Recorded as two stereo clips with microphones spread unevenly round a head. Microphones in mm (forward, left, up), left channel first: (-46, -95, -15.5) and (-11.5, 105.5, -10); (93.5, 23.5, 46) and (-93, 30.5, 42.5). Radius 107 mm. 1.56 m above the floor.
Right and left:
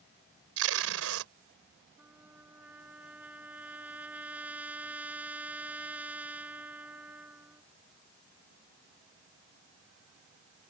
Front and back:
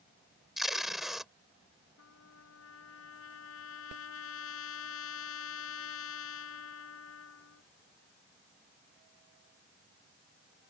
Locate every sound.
0.6 s tape being pulled: 90° left
2.0 s a trumpet: straight ahead